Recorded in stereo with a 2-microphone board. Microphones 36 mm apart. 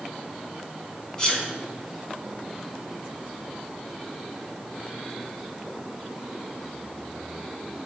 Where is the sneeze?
25° left (ahead or behind), 3 m.